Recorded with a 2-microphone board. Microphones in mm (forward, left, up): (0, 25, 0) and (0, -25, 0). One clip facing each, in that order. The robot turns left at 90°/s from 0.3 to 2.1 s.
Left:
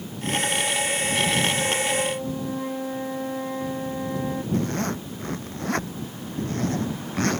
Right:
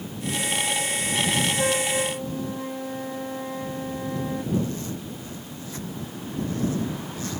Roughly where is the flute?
Behind right.